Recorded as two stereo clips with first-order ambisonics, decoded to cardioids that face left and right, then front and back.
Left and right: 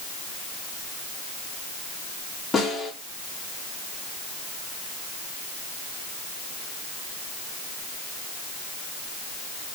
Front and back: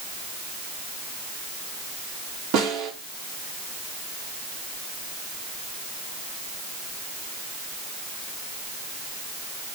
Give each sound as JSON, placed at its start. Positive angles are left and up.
{"t": 2.5, "sound": "a snare drum", "azimuth_deg": 170, "distance_m": 4.0}